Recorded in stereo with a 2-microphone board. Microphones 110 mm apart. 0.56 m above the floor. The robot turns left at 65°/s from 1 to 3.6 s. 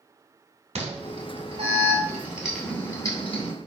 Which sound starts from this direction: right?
An alarm, at 0.8 s.